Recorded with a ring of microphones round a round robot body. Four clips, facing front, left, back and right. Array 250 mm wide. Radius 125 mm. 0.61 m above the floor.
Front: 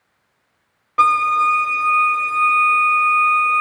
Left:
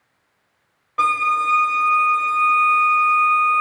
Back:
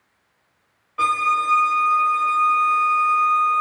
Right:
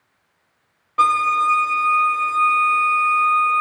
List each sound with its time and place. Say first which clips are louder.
1.0 s a violin: right 2 dB, front 5 dB; 10° right, 0.5 m